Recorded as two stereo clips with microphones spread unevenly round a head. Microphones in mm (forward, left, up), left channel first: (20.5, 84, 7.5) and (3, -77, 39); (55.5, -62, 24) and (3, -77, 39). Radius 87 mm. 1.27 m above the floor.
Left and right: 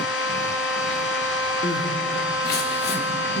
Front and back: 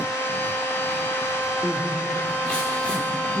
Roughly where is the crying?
Left.